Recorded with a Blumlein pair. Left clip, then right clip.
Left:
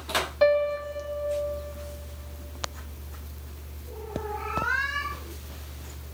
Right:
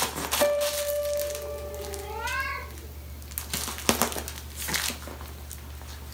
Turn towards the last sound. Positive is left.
turn(degrees=25)